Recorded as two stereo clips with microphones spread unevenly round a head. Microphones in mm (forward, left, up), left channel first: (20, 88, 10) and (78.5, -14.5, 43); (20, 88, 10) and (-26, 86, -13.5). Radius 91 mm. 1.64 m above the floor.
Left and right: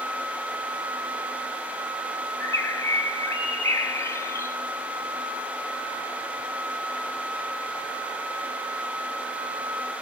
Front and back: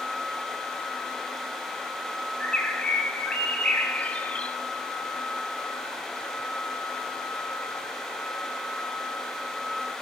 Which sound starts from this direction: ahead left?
A bird, at 2.4 s.